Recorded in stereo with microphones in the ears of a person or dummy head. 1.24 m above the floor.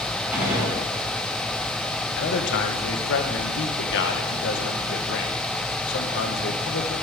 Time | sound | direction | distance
0.3 | a gunshot | 10° right (ahead or behind) | 3 m
2.2 | a man speaking | 60° left (ahead or behind) | 0.9 m